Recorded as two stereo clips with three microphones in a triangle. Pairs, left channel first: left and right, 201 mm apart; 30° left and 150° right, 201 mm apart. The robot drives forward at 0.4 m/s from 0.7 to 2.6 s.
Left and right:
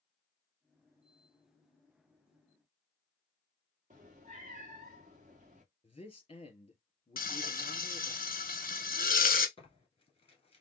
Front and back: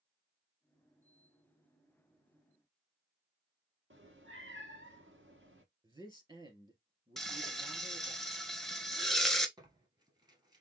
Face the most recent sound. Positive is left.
turn(degrees=145)